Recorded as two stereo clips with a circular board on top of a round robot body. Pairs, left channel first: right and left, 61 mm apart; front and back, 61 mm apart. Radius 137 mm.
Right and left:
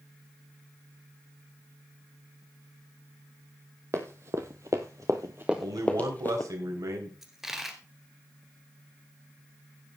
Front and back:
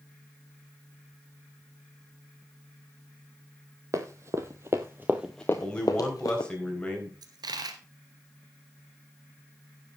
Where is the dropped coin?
175° left, 1.1 m.